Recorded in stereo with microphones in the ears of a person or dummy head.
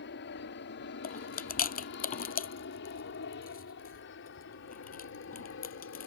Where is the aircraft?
55° left (ahead or behind); by 6.1 s 60° left (ahead or behind).